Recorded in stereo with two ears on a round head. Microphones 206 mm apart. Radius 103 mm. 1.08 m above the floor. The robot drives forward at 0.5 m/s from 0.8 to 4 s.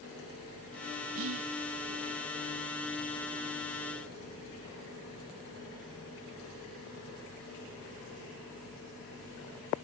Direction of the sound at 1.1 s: 65° right (ahead or behind).